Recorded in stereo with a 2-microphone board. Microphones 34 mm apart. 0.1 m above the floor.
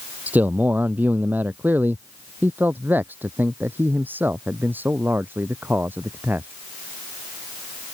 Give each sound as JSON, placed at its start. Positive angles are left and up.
{"t": 0.3, "sound": "a man speaking", "side_deg": -60}